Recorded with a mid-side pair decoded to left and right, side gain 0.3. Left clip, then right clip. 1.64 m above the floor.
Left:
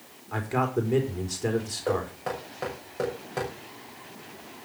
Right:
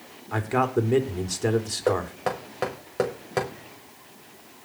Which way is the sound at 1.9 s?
70° right.